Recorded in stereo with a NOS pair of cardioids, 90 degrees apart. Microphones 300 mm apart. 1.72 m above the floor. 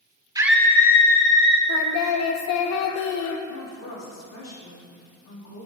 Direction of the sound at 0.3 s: 10° right.